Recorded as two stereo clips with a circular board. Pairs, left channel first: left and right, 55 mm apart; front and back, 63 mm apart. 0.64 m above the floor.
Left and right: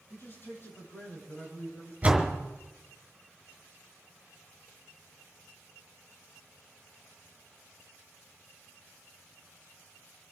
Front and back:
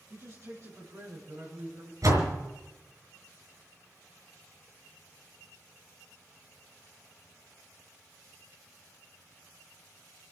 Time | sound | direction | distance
0.1 | a man speaking | 135° left | 7.5 m
2.0 | a door slam | 155° right | 5 m